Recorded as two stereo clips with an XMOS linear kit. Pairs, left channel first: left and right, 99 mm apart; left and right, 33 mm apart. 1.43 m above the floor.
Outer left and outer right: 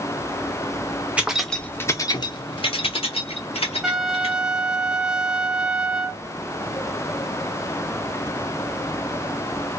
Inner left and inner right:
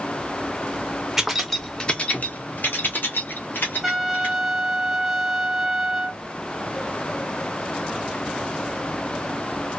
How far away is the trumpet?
About 0.6 m.